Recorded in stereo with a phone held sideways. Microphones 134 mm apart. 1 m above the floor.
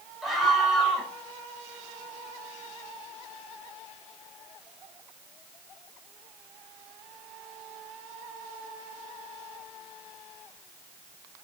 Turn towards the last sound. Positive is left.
turn(degrees=0)  # may be behind; listen again after turning